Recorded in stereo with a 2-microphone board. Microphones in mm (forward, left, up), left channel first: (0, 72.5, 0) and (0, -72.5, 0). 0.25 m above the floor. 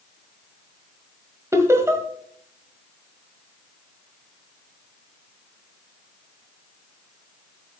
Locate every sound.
1.5 s laughter: 20° right (ahead or behind), 1.3 m